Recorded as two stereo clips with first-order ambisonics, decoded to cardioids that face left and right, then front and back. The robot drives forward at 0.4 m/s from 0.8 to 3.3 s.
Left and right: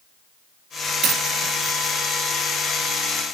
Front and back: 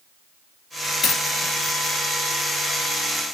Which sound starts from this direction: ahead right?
A dropped coin, at 1.0 s.